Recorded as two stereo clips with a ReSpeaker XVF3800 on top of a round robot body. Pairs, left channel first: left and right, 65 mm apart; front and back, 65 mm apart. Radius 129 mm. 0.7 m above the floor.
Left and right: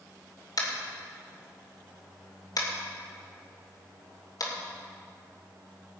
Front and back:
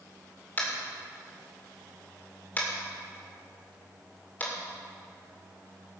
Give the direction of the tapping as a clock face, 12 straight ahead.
10 o'clock.